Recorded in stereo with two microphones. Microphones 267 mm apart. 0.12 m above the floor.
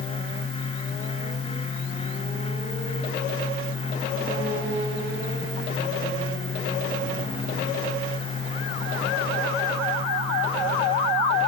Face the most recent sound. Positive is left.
No sound to turn to.